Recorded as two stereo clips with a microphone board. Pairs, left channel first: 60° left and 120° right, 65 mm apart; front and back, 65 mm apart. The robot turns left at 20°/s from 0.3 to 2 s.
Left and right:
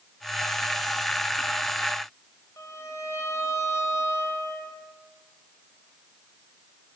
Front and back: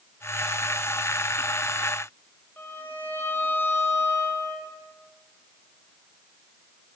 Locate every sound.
2.6 s a violin: 45° left, 1.5 m